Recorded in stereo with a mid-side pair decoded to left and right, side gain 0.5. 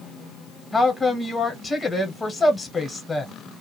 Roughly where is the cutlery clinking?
I don't hear cutlery clinking.